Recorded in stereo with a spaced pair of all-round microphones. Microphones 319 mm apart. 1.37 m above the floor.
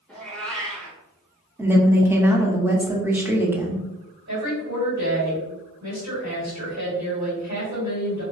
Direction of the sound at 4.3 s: 60° right (ahead or behind).